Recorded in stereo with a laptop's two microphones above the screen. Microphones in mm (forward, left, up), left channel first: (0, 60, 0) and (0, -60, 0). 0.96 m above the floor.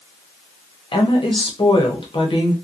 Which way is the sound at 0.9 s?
45° left (ahead or behind).